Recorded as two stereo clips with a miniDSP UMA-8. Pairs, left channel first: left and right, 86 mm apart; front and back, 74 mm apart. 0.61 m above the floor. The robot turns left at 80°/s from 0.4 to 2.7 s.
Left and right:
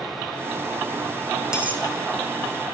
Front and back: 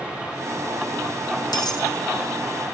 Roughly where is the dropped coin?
Ahead.